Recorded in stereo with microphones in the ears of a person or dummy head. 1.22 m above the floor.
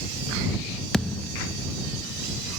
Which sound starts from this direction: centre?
A thud, at 0.9 s.